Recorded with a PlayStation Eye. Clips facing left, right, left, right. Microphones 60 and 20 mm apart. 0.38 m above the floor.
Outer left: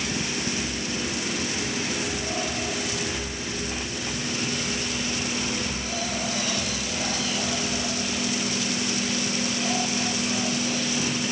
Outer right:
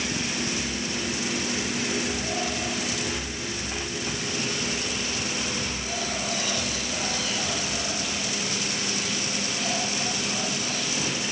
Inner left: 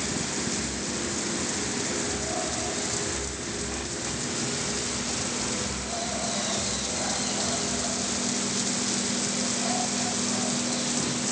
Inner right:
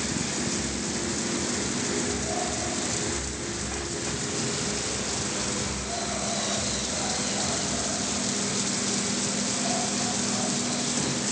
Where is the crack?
I don't hear a crack.